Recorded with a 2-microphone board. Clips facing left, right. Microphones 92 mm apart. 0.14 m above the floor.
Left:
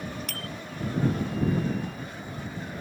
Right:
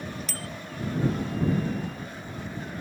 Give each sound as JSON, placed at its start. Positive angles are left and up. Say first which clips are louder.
{"t": 0.3, "sound": "a bicycle bell", "louder": "even", "side_deg": 55}